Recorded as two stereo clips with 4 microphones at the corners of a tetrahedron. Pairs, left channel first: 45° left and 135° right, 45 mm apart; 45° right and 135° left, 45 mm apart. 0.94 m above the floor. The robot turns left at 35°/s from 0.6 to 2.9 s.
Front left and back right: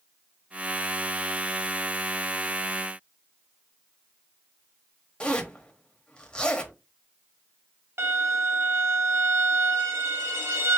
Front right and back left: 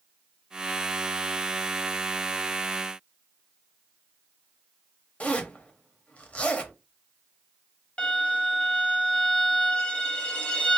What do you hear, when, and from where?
5.2 s a zipper: 10° right, 0.8 m
8.0 s a violin: 110° right, 0.8 m